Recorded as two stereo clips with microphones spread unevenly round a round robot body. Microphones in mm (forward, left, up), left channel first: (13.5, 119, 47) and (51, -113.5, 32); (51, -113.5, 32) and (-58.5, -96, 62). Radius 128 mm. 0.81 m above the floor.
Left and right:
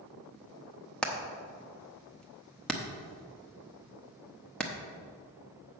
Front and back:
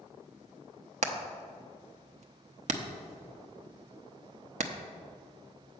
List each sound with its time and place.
1.0 s hammering: 175° right, 0.9 m